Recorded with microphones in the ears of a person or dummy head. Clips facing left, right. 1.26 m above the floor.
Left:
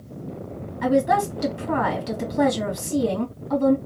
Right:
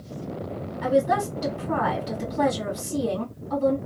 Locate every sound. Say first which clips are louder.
0.8 s a woman speaking: left 2 dB; 65° left (ahead or behind), 2.5 m